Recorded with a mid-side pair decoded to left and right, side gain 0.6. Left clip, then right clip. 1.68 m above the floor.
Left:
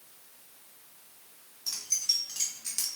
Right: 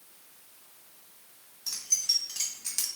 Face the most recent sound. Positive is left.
turn(degrees=-5)